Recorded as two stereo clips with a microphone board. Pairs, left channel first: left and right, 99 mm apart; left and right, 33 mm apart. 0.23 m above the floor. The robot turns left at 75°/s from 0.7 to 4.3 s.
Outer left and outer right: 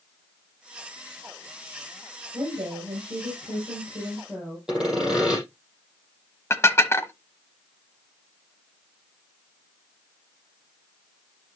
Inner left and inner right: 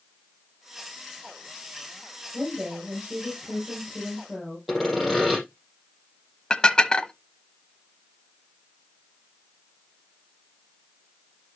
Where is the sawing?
10° right (ahead or behind), 6.5 m.